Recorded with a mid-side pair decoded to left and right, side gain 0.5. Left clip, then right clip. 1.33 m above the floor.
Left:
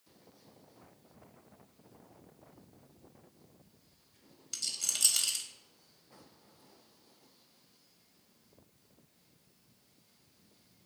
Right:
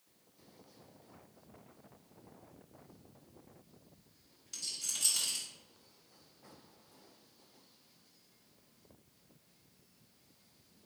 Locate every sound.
4.5 s a rattle: 55° left, 1.2 m